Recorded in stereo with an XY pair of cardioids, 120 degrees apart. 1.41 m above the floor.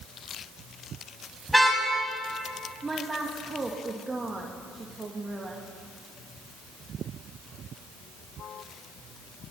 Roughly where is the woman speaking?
Ahead.